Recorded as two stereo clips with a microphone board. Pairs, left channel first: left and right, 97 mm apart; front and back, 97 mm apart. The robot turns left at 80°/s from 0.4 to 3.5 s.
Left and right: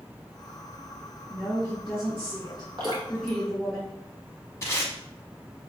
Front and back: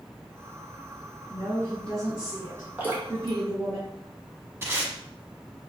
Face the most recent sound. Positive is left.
turn(degrees=135)